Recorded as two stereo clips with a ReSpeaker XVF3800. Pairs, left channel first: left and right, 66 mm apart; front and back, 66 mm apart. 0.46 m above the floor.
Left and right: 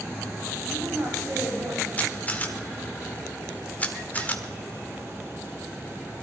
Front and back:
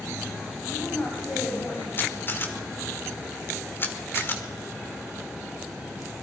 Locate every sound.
0.7 s a woman speaking: 55° right, 4 m
2.0 s a camera shutter: 30° left, 1.4 m